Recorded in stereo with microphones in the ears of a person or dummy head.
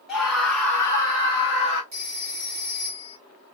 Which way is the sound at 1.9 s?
30° right (ahead or behind).